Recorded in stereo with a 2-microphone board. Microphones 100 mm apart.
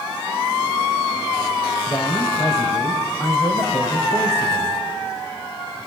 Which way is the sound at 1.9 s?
30° left (ahead or behind).